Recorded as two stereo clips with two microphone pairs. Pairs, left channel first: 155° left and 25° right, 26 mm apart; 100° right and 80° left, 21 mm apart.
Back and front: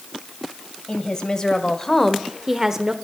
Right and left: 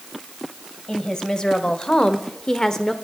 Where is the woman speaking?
160° right, 2 m; by 2.9 s 50° right, 1.1 m.